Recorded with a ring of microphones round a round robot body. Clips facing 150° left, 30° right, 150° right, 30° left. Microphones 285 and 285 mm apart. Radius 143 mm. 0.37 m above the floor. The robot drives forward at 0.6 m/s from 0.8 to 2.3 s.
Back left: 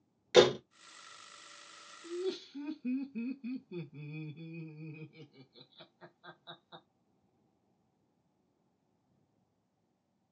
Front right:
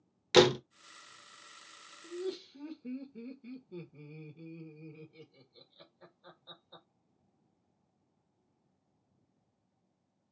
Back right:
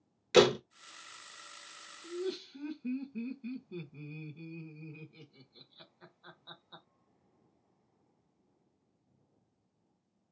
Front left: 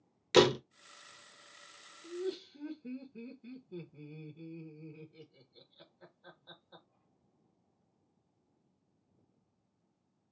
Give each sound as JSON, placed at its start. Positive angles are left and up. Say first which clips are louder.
{"t": 0.3, "sound": "a door slam", "louder": "even, back right 1 dB", "azimuth_deg": -40, "distance_m": 0.5}
{"t": 2.0, "sound": "laughter", "louder": "back left 2 dB, back right 1 dB", "azimuth_deg": 180, "distance_m": 1.5}